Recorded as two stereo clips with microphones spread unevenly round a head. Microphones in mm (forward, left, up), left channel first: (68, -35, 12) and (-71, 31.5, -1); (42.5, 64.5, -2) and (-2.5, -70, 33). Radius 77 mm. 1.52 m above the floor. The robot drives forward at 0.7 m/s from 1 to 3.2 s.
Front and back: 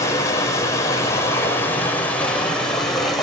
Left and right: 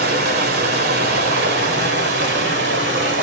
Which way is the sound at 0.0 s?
95° right.